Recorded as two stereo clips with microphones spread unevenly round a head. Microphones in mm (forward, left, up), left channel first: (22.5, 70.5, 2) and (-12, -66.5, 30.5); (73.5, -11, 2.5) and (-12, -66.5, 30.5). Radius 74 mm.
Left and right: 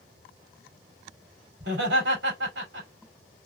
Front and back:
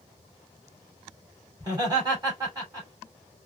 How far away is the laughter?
About 3 m.